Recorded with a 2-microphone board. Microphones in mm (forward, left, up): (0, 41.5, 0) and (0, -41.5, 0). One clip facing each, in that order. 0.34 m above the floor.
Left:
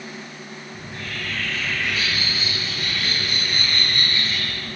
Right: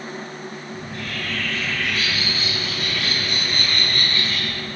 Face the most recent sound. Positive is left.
turn(degrees=0)  # may be behind; listen again after turning